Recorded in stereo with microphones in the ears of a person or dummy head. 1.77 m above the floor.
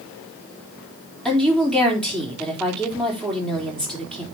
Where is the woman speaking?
5° left (ahead or behind), 3.5 m.